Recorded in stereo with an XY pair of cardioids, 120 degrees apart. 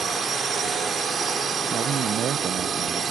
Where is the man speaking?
55° right.